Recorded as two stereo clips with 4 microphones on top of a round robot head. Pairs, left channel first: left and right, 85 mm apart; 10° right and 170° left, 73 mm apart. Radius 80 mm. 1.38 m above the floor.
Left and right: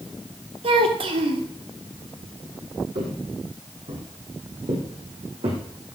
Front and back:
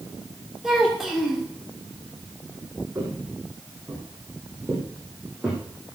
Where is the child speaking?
100° right, 2.5 m.